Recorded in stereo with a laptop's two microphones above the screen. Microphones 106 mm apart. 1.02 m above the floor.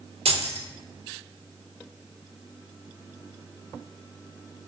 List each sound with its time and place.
0.2 s keys jangling: 90° right, 0.9 m